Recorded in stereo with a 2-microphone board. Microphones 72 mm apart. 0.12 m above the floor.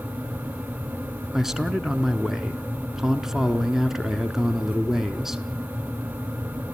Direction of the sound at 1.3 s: 5° right (ahead or behind).